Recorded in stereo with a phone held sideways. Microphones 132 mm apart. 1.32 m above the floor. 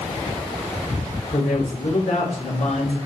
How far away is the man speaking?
About 4 m.